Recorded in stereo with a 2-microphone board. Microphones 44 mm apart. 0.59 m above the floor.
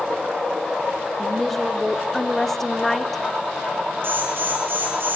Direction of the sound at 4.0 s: 55° right (ahead or behind).